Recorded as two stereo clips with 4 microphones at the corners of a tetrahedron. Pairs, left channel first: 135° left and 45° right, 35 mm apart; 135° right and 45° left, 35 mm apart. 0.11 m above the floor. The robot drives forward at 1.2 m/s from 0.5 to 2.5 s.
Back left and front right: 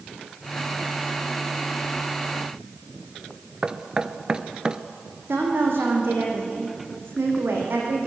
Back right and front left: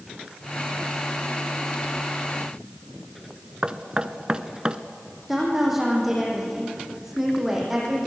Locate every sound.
3.6 s knocking: 5° left, 0.8 m
5.3 s a woman speaking: 40° right, 6.5 m